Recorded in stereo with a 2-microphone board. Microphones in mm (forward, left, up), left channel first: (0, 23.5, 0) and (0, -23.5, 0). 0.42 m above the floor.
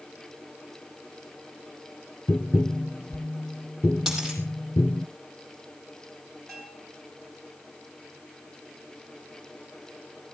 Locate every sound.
2.3 s tapping: 60° left (ahead or behind), 0.8 m
4.1 s a dropped coin: 5° right (ahead or behind), 6.5 m
6.5 s a bell: 5° left (ahead or behind), 5.5 m